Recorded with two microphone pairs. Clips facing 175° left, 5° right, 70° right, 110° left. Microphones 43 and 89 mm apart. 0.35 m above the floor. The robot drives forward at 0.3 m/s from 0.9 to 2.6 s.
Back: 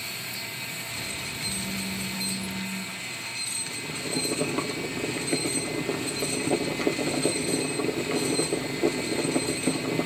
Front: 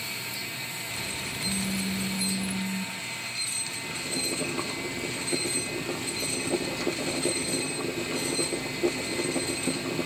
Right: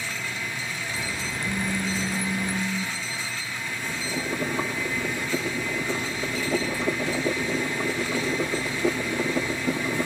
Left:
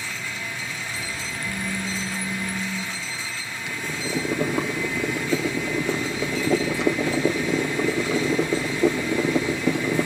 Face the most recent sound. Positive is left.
turn(degrees=110)